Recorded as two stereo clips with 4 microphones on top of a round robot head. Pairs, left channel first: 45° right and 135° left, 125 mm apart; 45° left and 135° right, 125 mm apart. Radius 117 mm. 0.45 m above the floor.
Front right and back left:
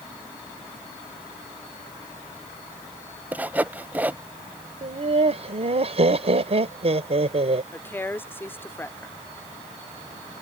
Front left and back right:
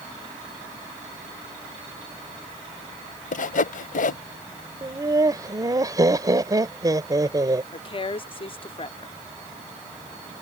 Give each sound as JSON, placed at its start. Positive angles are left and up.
{"t": 3.3, "sound": "sawing", "azimuth_deg": 55}
{"t": 4.8, "sound": "laughter", "azimuth_deg": 165}
{"t": 7.7, "sound": "a woman speaking", "azimuth_deg": 20}